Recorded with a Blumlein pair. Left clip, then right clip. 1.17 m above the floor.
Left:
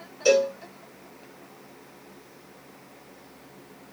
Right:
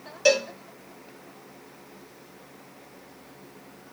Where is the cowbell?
35° right, 1.2 m.